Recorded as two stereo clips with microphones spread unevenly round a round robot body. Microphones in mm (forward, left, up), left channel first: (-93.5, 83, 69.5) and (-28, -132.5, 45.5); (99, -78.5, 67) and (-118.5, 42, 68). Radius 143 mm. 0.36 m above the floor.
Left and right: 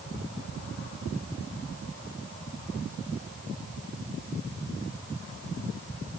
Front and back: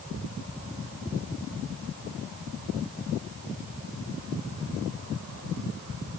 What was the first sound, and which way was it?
Only background noise.